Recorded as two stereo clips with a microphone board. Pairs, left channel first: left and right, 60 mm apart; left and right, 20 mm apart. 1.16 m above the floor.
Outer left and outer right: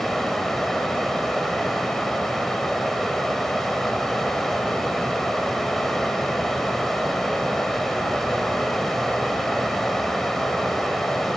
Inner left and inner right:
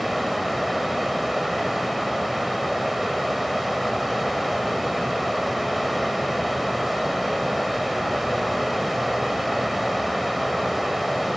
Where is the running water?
5° left (ahead or behind), 1.2 m.